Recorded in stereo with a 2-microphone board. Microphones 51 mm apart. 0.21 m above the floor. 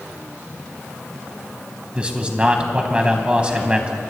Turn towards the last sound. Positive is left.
turn(degrees=-20)  # may be behind; listen again after turning